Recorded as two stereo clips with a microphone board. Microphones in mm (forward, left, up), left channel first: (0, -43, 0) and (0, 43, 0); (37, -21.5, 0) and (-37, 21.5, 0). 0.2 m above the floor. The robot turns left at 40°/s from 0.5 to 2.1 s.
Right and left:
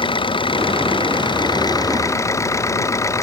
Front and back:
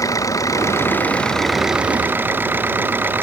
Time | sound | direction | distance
0.0 | an engine running | 80° right | ?